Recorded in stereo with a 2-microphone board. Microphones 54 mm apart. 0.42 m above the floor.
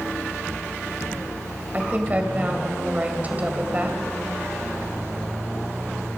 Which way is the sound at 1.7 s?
30° right (ahead or behind).